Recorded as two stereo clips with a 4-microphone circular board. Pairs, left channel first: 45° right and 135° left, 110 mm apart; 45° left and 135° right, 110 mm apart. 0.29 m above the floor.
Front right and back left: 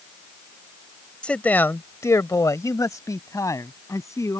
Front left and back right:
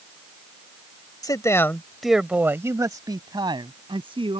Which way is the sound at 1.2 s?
30° left.